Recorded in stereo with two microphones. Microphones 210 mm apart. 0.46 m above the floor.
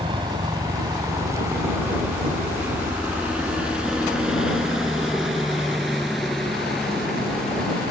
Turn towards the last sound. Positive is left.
turn(degrees=5)  # may be behind; listen again after turning